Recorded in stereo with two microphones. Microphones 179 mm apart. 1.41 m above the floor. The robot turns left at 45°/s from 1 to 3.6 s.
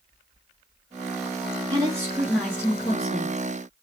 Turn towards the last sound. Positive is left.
turn(degrees=120)